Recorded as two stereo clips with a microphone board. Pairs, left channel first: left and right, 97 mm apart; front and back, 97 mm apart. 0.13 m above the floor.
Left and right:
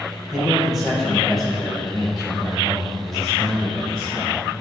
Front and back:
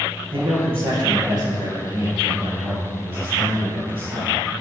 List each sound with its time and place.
0.3 s a man speaking: 175° right, 2.5 m; by 4.3 s 175° left, 6 m